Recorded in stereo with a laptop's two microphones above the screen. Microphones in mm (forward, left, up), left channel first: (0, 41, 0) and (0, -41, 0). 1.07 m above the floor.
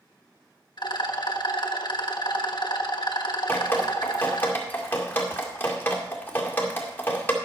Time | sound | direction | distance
0.8 | a rattle | 60° left (ahead or behind) | 1.2 m
3.5 | dripping | 20° left (ahead or behind) | 2 m